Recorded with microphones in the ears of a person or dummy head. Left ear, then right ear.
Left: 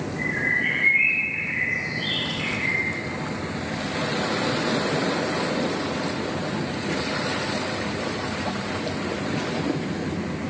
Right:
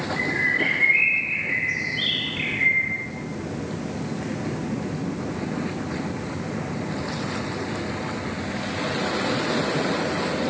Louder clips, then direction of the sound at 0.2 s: Right 1 dB; 75° right (ahead or behind).